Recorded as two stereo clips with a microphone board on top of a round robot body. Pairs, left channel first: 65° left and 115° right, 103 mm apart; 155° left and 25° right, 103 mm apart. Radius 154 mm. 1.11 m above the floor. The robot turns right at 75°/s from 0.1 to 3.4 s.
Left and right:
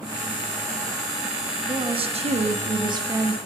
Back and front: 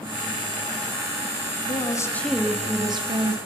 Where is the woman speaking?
165° right, 2.5 m; by 3.4 s 35° right, 2.5 m.